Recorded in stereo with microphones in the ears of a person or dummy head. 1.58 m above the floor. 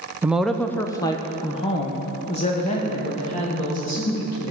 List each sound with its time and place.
0.2 s a woman speaking: 5° right (ahead or behind), 0.6 m; by 4.5 s 50° left (ahead or behind), 3.5 m